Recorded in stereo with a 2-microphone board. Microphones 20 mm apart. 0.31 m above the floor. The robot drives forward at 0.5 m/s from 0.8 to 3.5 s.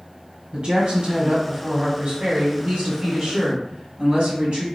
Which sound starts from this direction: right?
A woman speaking, at 0.5 s.